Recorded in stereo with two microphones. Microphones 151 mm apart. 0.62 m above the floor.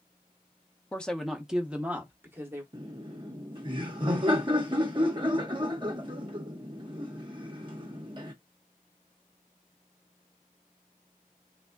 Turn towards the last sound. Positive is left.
turn(degrees=-30)  # may be behind; listen again after turning